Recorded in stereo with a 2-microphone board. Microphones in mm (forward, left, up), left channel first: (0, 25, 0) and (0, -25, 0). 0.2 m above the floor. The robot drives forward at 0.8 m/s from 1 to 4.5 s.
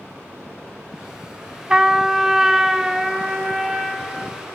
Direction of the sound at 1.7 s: 15° right (ahead or behind).